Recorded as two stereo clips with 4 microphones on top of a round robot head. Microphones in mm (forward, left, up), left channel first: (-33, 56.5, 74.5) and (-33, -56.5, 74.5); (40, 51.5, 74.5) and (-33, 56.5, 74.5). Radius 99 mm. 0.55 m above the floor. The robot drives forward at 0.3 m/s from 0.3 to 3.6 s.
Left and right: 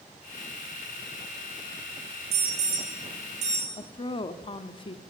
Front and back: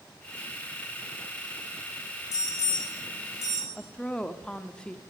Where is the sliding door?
I don't hear a sliding door.